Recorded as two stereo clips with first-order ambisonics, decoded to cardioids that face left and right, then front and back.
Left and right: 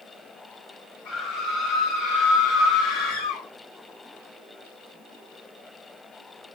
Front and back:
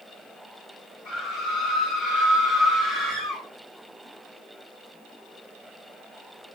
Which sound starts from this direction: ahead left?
A scream, at 1.1 s.